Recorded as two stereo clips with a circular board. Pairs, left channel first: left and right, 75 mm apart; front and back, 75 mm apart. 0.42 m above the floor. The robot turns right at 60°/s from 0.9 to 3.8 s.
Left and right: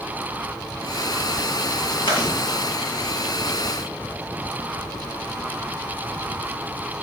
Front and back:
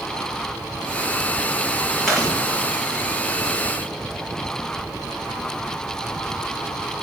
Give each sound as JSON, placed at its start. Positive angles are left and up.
{"t": 2.1, "sound": "chewing", "azimuth_deg": 90, "distance_m": 6.0}